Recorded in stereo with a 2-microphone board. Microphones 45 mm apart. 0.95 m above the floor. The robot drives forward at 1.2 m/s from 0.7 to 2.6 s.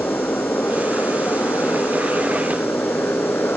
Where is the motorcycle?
55° left (ahead or behind).